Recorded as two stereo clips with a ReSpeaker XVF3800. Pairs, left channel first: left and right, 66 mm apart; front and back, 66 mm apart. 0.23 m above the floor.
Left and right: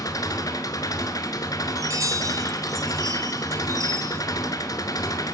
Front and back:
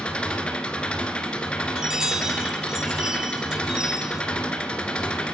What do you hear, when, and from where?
0.0 s an engine running: 75° left, 1.6 m
1.8 s a chime: 100° right, 1.1 m